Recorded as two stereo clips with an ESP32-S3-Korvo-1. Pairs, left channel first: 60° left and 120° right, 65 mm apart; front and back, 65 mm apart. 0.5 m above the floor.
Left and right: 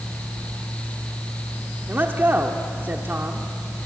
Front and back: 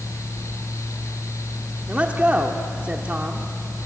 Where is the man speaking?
130° right, 1.2 m.